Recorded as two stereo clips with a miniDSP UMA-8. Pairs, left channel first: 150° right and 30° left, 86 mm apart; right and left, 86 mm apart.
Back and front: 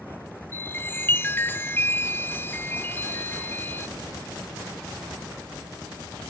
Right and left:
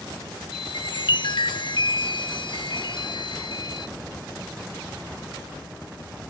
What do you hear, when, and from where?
0.5 s a chime: 90° right, 0.6 m